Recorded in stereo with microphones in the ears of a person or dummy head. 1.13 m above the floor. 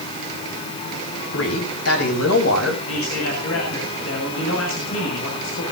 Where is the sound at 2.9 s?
85° left, 8.5 m.